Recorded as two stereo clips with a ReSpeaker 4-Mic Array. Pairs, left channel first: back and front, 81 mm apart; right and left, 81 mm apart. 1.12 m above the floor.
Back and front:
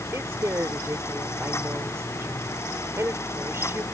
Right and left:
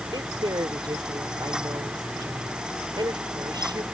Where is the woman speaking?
60° left.